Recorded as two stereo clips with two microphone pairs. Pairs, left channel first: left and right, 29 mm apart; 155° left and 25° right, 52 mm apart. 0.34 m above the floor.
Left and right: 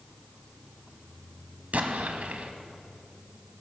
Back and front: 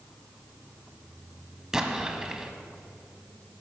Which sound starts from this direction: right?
An explosion, at 1.7 s.